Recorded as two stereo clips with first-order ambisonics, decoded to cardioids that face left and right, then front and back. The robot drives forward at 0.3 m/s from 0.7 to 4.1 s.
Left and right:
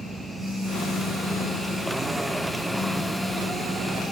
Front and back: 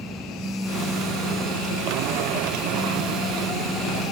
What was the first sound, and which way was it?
A phone buzzing, 145° right.